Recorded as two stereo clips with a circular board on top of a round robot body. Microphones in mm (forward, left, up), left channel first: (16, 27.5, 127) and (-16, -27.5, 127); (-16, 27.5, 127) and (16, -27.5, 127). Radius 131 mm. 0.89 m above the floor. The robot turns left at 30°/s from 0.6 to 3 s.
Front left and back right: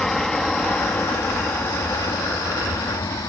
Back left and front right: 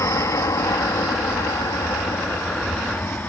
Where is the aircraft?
140° left; by 3.3 s 60° left.